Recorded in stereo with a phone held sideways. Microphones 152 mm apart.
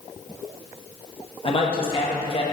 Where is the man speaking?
35° left (ahead or behind), 1.1 m.